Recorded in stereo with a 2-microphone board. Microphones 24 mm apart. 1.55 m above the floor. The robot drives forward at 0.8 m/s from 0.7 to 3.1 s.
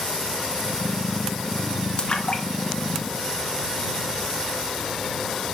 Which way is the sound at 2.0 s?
40° left (ahead or behind).